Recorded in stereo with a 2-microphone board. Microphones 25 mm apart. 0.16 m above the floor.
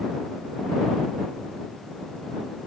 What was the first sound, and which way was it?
Only background noise.